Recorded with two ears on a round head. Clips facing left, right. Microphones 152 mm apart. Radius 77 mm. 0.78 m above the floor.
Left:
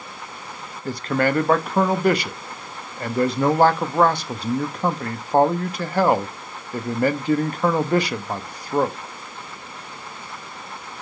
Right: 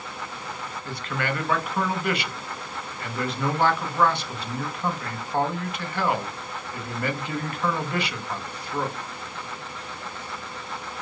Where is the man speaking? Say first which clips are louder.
Left 9 dB; 35° left (ahead or behind), 0.9 m.